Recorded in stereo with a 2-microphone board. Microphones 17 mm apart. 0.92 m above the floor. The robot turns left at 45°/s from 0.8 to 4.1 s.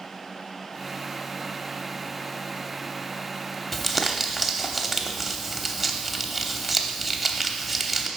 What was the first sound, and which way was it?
Crumpling, centre (ahead or behind).